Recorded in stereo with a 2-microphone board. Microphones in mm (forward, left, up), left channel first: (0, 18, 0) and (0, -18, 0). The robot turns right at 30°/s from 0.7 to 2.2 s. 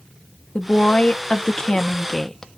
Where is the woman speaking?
115° left, 0.8 m; by 2.5 s 160° left, 0.8 m.